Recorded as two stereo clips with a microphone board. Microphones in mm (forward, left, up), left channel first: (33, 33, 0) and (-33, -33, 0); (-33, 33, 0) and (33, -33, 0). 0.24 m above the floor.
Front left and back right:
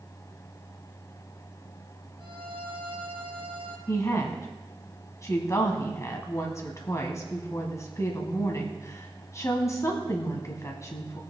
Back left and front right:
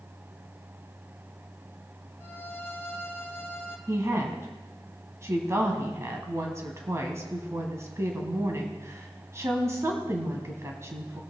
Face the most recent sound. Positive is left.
turn(degrees=5)